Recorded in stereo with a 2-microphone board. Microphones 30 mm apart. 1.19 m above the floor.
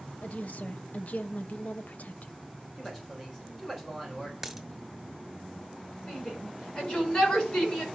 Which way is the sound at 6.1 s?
25° left (ahead or behind).